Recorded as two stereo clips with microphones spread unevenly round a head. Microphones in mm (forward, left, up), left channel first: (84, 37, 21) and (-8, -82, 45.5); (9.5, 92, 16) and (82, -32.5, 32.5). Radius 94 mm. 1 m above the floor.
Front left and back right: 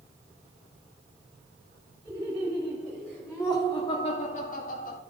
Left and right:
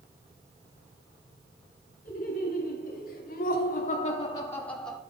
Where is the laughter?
165° left, 3 m; by 5.0 s 30° left, 1.7 m.